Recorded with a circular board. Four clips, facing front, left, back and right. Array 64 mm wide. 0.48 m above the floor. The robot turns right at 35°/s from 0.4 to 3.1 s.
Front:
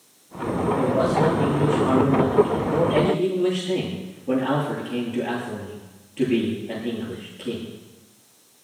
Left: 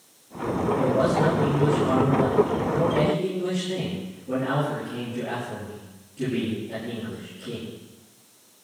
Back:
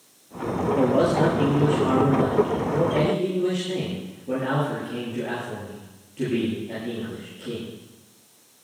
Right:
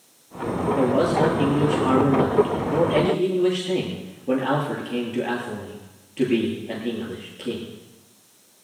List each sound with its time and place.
0.8 s a man speaking: 145° right, 9 m; by 7.7 s 60° right, 9 m